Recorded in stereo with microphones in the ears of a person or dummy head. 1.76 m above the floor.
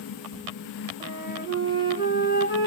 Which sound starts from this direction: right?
A flute, at 1.0 s.